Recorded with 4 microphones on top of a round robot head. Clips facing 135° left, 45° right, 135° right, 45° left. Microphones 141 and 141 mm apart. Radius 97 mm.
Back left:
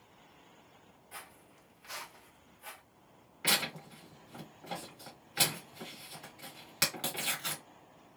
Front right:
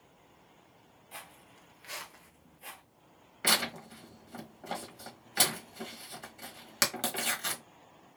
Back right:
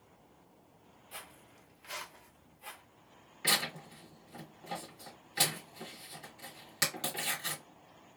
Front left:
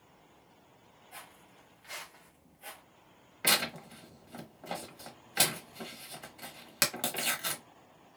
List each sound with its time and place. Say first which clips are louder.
1.1 s footsteps: front right 2 dB, even; 110° right, 0.9 m; by 2.8 s straight ahead, 1.0 m
3.4 s tearing paper: front right 3 dB, front left 3 dB; 5° left, 1.2 m